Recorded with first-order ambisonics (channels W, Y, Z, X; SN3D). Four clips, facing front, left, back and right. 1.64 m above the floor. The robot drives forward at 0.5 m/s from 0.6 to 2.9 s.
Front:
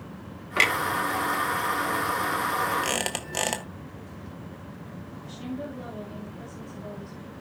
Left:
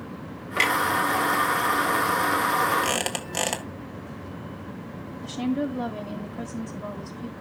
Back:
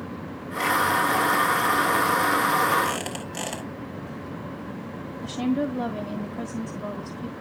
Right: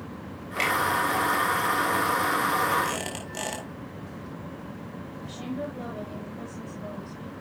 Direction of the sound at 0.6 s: 15° left.